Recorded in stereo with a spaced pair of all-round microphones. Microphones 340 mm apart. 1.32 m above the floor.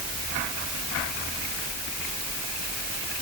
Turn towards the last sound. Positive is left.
No sound to turn to.